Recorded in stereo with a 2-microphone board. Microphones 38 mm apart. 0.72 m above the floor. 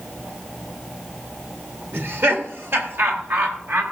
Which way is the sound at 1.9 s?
70° right (ahead or behind).